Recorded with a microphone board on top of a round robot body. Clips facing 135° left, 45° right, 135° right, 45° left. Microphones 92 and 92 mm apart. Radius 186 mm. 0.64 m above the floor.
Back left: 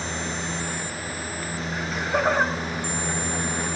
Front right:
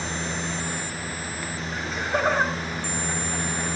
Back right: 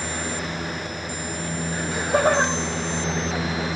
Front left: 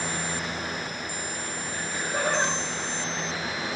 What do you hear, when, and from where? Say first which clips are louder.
1.7 s laughter: back left 1 dB, back right 9 dB; 135° right, 5.5 m